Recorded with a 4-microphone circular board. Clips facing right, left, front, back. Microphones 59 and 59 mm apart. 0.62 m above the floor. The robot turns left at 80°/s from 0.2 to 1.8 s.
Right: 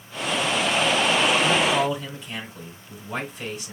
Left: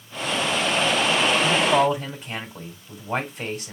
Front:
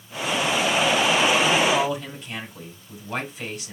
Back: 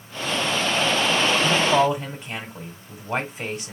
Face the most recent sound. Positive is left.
turn(degrees=130)